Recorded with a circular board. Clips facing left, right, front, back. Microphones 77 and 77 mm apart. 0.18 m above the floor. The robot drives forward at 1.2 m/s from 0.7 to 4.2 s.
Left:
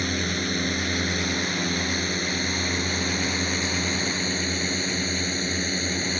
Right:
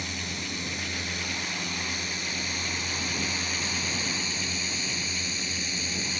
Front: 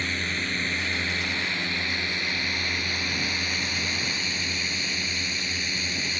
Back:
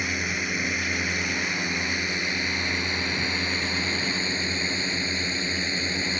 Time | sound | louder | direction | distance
0.0 | a drone | left 9 dB, back 1 dB | 105° left | ?